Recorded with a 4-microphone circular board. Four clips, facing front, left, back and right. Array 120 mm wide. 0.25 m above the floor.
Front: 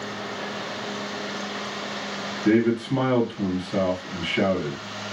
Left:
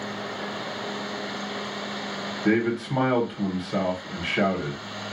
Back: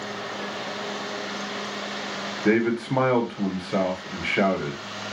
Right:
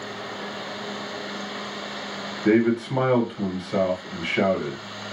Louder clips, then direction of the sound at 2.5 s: Right 4 dB, front 2 dB; 175° right.